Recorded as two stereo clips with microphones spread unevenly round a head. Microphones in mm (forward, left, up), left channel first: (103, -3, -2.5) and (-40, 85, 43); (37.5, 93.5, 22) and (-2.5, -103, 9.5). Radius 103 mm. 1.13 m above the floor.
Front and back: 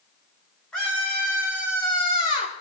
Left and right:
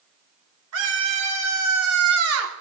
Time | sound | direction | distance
0.7 | a scream | 115° right | 4.5 m